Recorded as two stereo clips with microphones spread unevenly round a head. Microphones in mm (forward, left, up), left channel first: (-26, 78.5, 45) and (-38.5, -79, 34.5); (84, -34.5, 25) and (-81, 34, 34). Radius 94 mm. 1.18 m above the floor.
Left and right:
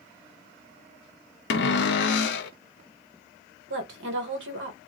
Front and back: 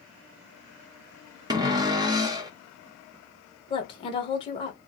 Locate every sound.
1.5 s a cupboard door: 90° left, 0.5 m
3.7 s a woman speaking: 90° right, 1.2 m